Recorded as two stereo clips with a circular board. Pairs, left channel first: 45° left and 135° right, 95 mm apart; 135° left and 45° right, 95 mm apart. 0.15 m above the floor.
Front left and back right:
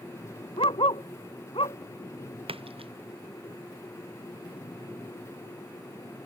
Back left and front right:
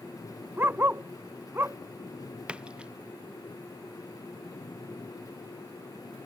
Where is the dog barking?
20° left.